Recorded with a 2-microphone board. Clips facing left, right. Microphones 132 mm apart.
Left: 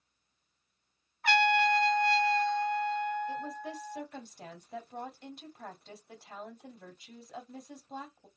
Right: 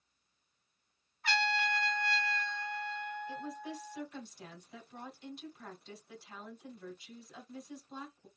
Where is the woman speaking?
55° left (ahead or behind), 2.5 m.